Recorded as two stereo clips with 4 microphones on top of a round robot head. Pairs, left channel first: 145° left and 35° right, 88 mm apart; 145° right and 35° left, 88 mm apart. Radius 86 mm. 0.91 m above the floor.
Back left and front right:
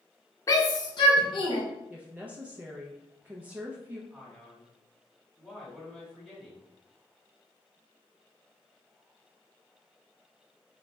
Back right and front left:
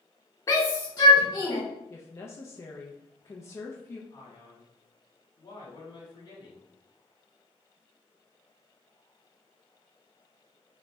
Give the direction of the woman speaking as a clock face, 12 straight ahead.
3 o'clock.